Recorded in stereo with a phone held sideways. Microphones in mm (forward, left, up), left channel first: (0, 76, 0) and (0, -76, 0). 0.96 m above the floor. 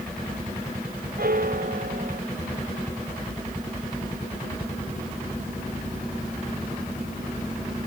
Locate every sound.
1.2 s a piano: 75° right (ahead or behind)